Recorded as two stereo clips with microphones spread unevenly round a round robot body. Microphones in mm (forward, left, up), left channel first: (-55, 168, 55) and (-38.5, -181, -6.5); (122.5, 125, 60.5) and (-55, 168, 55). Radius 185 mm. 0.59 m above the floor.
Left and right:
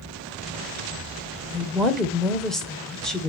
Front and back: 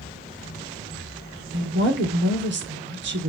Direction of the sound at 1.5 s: 175° right.